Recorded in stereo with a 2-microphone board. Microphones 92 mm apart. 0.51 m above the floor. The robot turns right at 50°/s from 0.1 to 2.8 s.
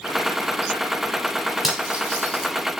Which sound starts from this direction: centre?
Cutlery clinking, at 1.6 s.